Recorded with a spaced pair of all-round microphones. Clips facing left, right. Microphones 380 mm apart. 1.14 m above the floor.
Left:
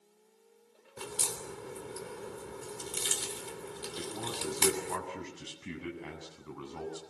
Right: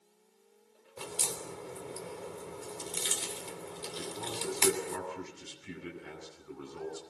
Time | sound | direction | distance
1.0 | a crack | 25° left (ahead or behind) | 4 m
4.0 | a man speaking | 80° left | 8 m